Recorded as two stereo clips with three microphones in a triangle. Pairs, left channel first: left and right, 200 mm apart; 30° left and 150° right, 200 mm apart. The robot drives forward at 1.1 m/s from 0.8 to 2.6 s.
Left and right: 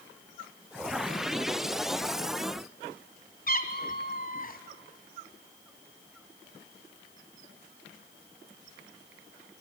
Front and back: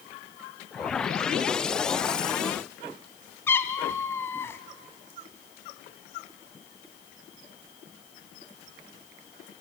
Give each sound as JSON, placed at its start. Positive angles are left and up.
{"t": 3.5, "sound": "a cat meowing", "azimuth_deg": 105, "distance_m": 1.3}